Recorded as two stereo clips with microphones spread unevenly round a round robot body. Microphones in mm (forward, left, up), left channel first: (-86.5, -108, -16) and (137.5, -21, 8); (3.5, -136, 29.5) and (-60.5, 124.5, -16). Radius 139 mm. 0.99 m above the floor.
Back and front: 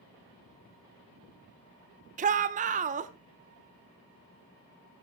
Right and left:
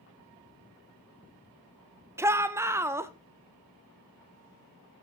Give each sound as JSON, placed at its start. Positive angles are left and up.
{"t": 2.2, "sound": "a shout", "azimuth_deg": 55, "distance_m": 0.5}